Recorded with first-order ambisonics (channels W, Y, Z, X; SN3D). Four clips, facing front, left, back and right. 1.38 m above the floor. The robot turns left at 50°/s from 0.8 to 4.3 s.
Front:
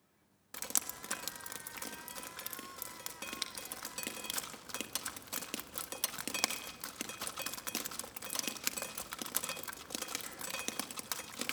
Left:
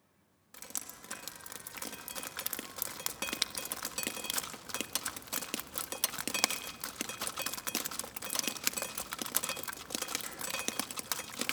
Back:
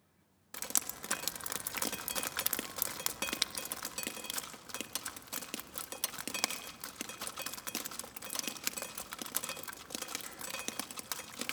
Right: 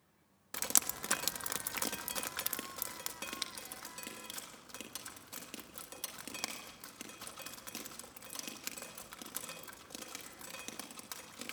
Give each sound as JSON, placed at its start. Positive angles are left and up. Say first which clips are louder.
{"t": 0.5, "sound": "dripping", "louder": "right 10 dB, back 1 dB", "azimuth_deg": -95, "distance_m": 0.8}